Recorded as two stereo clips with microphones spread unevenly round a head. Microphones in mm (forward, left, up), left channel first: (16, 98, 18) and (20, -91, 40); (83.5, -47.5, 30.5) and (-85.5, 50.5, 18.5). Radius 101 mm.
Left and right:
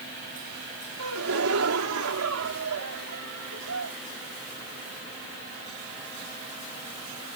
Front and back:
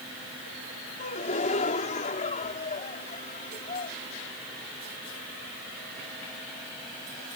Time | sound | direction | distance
1.0 | a gasp | 85° right | ?